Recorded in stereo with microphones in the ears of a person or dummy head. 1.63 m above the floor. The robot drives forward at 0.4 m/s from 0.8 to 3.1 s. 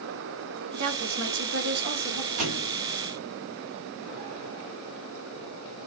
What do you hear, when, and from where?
0.7 s a woman speaking: 70° right (ahead or behind), 1.1 m; by 2.3 s 45° right (ahead or behind), 1.4 m
2.4 s a thud: 40° right (ahead or behind), 1.9 m